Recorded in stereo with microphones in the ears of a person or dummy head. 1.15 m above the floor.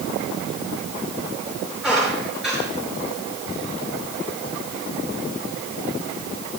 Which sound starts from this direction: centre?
A squeak, at 1.8 s.